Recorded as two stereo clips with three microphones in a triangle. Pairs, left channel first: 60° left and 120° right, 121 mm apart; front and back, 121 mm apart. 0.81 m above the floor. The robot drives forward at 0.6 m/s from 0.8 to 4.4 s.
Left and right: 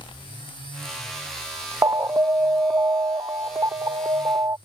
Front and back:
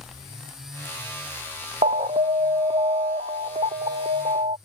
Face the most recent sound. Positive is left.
turn(degrees=180)